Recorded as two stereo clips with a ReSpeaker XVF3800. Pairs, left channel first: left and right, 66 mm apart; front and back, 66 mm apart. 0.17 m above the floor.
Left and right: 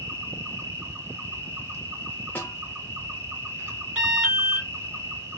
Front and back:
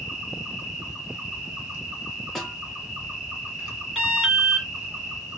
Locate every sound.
0.0 s an insect: 110° right, 2.5 m
2.4 s a snare drum: 80° left, 0.7 m
4.0 s an alarm: 95° right, 1.2 m